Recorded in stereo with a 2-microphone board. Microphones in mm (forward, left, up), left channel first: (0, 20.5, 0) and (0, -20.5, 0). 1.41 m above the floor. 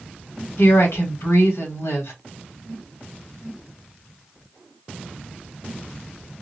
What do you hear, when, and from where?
0.6 s a woman speaking: 75° left (ahead or behind), 1.3 m